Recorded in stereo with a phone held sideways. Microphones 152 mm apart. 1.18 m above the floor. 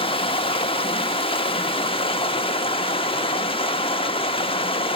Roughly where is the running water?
Left.